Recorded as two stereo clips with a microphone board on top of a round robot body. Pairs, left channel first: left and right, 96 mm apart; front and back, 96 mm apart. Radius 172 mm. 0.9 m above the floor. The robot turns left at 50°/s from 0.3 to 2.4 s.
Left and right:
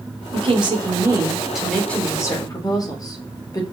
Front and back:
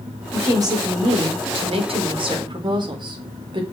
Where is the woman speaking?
115° right, 4 m; by 3.6 s 140° left, 4 m.